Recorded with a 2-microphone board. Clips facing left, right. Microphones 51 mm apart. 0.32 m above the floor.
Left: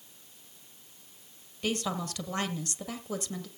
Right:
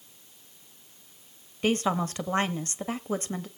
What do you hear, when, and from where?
1.6 s a woman speaking: 35° right (ahead or behind), 1.1 m